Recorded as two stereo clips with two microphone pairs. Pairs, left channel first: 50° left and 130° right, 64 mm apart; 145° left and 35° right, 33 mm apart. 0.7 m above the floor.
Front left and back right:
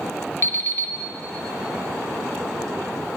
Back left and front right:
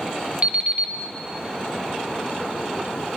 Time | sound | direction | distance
0.4 | an alarm clock | 10° left | 0.8 m